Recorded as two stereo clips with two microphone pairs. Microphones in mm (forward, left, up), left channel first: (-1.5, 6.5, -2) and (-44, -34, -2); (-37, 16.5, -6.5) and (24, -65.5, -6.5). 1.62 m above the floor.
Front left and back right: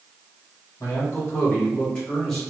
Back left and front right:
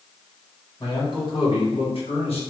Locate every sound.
0.8 s a man speaking: 80° left, 1.4 m; by 2.4 s 130° left, 1.3 m